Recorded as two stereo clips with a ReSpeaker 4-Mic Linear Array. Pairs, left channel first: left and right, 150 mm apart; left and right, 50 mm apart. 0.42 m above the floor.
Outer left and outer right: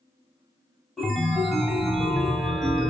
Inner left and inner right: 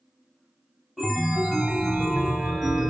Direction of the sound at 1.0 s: Centre (ahead or behind).